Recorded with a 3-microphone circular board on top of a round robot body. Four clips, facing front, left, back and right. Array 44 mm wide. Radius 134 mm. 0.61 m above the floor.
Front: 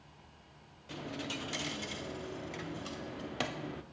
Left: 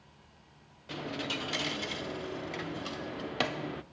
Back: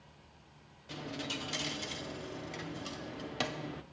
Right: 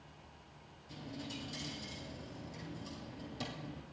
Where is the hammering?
I don't hear hammering.